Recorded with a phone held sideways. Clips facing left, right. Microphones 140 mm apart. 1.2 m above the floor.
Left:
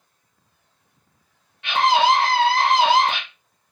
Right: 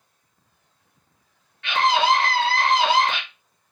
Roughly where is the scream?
Centre.